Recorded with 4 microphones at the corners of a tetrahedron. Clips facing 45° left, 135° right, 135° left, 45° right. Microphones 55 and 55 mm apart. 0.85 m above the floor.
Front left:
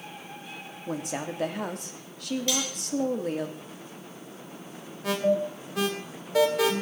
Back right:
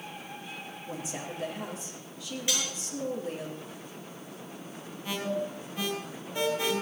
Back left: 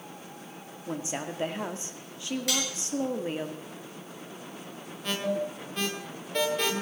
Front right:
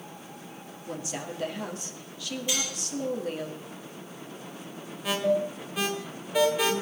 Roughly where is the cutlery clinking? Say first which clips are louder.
Front left 1 dB, even; behind left.